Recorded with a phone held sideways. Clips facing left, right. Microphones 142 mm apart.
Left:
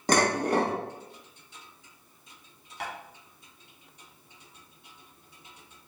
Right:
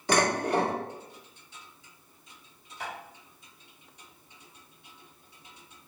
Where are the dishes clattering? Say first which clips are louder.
Left 1 dB; 40° left (ahead or behind), 1.4 m.